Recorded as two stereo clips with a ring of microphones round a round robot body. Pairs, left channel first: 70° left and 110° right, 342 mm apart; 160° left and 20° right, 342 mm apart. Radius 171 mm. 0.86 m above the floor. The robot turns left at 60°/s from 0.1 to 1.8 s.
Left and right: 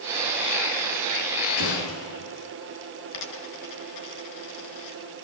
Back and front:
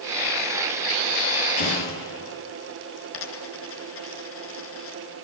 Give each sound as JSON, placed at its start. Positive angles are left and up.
{"t": 1.6, "sound": "an explosion", "azimuth_deg": 115, "distance_m": 10.0}
{"t": 3.1, "sound": "a dropped coin", "azimuth_deg": 105, "distance_m": 5.0}